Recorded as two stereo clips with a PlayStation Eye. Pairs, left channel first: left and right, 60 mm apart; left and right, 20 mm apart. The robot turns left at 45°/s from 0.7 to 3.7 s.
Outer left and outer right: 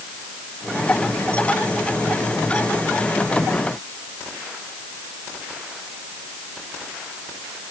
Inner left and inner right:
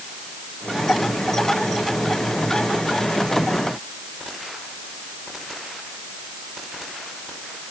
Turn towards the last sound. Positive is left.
No sound to turn to.